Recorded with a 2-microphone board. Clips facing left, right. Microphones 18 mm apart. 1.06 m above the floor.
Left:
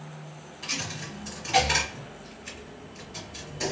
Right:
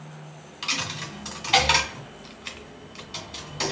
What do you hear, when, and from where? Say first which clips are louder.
0.6 s a dropped coin: right 4 dB; 50° right (ahead or behind), 1.5 m